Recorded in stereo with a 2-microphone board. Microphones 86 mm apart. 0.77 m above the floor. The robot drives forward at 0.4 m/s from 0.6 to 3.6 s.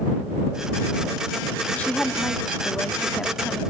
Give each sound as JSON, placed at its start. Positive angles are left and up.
{"t": 1.7, "sound": "a woman speaking", "side_deg": 15}